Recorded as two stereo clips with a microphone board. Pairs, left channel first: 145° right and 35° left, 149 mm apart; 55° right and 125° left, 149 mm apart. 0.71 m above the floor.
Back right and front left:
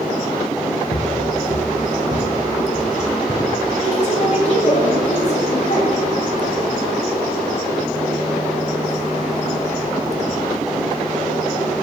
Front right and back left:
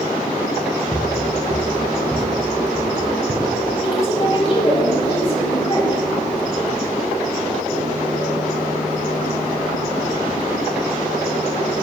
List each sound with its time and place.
0.9 s footsteps: 150° right, 1.6 m; by 3.5 s 155° left, 1.8 m
3.8 s a woman speaking: 105° right, 4.5 m